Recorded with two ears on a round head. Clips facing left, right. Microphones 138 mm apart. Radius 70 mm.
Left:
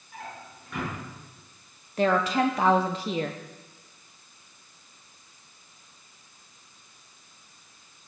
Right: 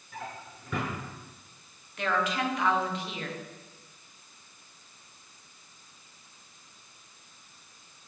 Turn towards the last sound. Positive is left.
turn(degrees=30)  # may be behind; listen again after turning